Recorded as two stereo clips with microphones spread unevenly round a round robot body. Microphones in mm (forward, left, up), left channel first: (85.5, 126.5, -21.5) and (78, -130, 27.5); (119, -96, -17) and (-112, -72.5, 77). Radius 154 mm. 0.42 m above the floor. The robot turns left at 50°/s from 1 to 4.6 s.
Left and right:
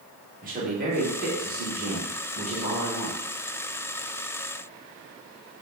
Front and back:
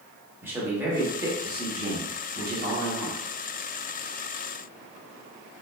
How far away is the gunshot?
No gunshot in this recording.